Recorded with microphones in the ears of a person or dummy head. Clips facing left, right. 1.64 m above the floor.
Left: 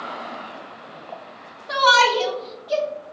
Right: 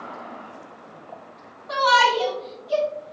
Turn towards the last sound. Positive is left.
turn(degrees=40)  # may be behind; listen again after turning